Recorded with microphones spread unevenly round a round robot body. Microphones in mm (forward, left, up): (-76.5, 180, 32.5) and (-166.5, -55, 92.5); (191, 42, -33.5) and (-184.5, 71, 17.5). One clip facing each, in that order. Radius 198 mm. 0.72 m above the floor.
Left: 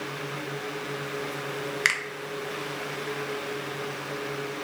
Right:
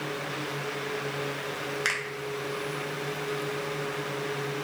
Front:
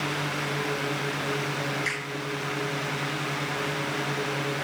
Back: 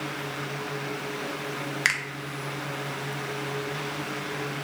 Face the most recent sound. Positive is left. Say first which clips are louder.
# right 1 dB, front 4 dB
turn(degrees=130)